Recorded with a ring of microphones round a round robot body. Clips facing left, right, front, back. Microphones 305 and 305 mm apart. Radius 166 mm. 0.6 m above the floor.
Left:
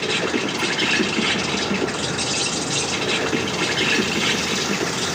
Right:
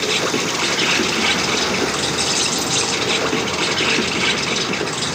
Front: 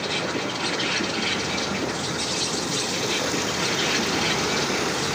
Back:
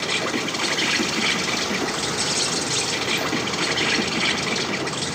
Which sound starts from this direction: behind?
An insect, at 0.0 s.